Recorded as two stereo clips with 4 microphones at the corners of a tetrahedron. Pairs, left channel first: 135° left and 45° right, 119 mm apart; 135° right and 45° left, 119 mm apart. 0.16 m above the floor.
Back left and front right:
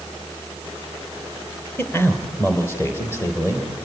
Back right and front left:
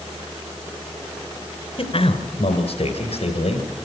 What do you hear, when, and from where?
1.8 s a man speaking: 155° right, 2 m; by 3.7 s 160° right, 4 m